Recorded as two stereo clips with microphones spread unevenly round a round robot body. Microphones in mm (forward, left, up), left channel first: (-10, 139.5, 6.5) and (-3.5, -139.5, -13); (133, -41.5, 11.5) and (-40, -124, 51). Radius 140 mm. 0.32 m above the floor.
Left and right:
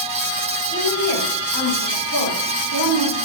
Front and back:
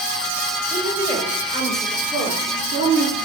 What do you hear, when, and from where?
0.7 s a woman speaking: 75° right, 5.5 m; by 3.2 s 95° right, 6 m